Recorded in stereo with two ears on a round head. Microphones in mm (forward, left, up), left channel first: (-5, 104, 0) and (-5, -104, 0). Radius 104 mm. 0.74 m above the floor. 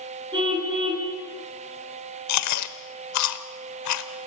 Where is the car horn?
20° right (ahead or behind), 5 m.